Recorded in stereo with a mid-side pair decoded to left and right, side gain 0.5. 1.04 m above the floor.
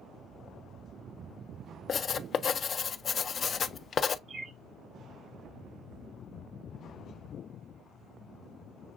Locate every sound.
1.9 s writing: 45° left, 0.5 m
4.3 s a bird: 40° right, 0.9 m